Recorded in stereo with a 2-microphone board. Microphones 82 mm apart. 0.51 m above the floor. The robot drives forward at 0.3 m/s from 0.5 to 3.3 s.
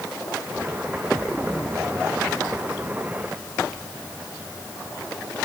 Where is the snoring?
I don't hear snoring.